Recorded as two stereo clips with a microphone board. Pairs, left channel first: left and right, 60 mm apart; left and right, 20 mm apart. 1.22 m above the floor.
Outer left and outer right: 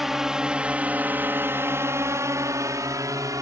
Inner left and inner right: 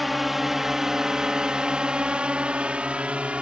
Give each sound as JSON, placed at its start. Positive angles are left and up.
{"t": 0.0, "sound": "a drone", "side_deg": -5}